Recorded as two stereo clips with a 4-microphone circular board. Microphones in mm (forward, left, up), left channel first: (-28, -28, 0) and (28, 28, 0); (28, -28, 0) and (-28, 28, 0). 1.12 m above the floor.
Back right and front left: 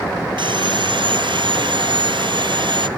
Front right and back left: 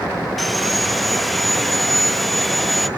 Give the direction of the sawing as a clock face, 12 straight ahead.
11 o'clock.